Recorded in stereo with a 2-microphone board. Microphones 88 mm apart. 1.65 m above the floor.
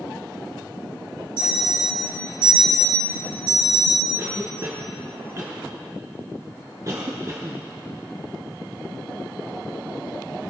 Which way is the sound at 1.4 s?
65° right (ahead or behind).